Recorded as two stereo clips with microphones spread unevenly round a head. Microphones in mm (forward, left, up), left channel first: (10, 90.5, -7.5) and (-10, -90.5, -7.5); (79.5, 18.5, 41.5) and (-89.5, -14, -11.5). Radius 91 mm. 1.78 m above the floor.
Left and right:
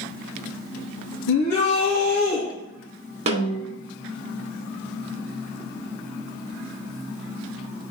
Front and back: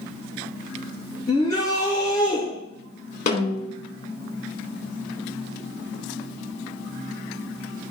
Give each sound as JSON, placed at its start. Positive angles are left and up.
{"t": 1.3, "sound": "a shout", "azimuth_deg": 85, "distance_m": 3.0}
{"t": 3.3, "sound": "a snare drum", "azimuth_deg": -40, "distance_m": 1.9}